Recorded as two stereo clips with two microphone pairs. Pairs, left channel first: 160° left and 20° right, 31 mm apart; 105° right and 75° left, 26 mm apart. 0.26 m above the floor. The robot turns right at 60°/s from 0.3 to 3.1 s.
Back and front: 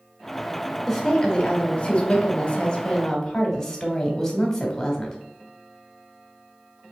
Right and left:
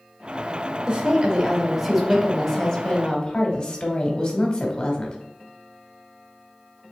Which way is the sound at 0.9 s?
95° left.